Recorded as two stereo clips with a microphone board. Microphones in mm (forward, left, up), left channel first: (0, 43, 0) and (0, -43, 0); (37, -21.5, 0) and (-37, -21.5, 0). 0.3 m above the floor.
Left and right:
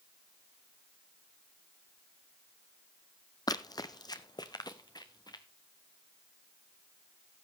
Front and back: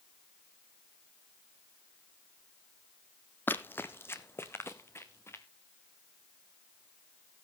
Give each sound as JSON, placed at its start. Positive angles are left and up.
{"t": 3.5, "sound": "running footsteps", "azimuth_deg": 60, "distance_m": 0.6}